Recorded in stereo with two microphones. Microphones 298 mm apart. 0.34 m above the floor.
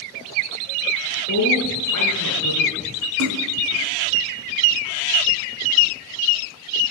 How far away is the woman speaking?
About 6.5 m.